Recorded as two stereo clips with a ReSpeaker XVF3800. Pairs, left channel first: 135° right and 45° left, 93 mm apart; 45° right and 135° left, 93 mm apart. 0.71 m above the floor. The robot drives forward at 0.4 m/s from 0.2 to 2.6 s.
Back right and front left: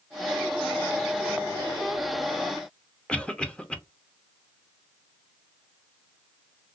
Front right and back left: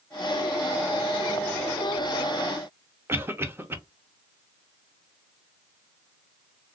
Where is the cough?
160° left, 0.7 m.